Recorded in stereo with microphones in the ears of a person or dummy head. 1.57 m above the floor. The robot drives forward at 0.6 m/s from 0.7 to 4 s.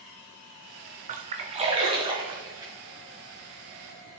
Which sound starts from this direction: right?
A splash, at 1.1 s.